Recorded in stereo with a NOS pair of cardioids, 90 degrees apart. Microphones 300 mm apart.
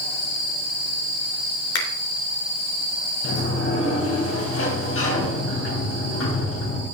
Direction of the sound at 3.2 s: 45° left.